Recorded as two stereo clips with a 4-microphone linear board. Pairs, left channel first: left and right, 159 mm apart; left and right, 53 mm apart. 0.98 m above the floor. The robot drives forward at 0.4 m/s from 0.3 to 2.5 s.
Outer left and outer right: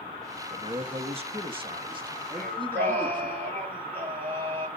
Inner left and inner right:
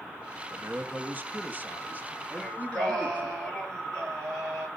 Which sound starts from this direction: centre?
Singing, at 2.4 s.